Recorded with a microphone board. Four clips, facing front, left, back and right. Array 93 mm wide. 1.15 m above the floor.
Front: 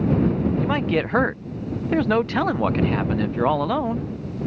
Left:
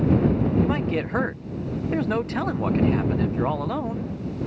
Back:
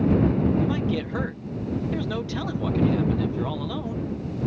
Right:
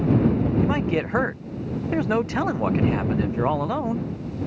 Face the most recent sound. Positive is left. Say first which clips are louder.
# right 1 dB, front 3 dB
turn(degrees=-15)